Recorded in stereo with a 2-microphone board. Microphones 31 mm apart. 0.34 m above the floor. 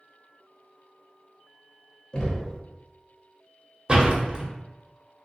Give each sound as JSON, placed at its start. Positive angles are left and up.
{"t": 2.1, "sound": "knocking", "side_deg": 30, "distance_m": 0.8}
{"t": 3.9, "sound": "a door slam", "side_deg": -30, "distance_m": 0.8}